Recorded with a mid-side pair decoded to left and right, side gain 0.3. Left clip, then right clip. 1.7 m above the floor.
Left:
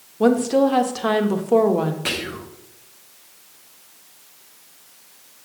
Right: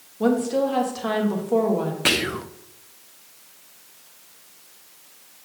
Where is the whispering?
70° right, 0.6 m.